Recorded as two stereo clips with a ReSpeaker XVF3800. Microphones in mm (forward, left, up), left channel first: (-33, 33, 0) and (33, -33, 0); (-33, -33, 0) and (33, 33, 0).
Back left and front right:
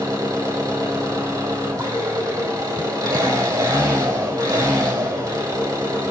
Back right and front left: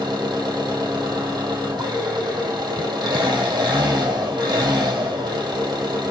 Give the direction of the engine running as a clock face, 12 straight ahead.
12 o'clock.